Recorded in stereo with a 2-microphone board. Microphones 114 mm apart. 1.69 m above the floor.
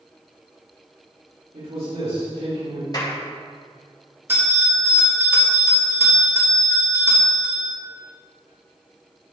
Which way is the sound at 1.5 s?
65° right (ahead or behind).